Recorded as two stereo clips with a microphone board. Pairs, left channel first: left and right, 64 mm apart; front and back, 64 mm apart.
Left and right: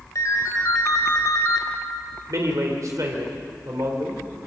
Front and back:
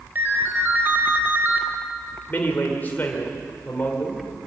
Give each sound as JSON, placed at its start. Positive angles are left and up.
{"t": 0.1, "sound": "a ringtone", "azimuth_deg": 125, "distance_m": 3.0}
{"t": 2.3, "sound": "a man speaking", "azimuth_deg": -60, "distance_m": 3.0}